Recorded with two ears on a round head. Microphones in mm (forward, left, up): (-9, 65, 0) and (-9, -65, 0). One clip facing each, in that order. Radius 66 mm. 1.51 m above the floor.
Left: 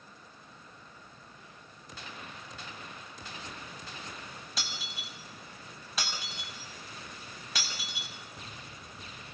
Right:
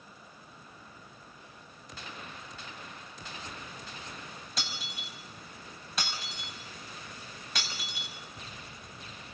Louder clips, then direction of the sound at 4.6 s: Right 2 dB; centre (ahead or behind).